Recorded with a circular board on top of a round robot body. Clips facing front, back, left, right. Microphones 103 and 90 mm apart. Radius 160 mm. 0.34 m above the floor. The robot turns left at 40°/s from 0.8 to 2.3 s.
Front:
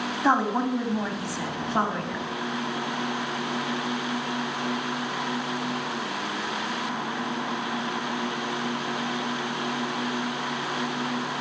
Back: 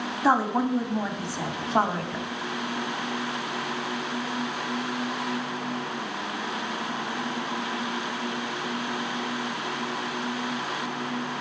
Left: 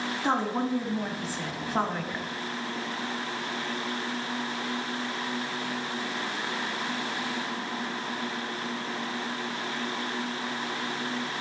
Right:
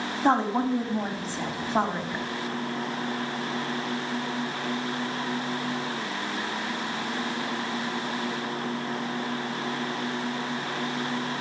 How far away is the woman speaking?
About 1.7 m.